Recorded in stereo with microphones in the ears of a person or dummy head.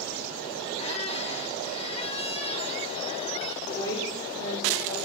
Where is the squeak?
40° left (ahead or behind), 0.8 m.